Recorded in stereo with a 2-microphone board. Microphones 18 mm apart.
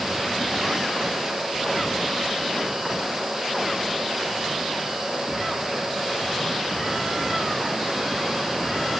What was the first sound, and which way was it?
Only background noise.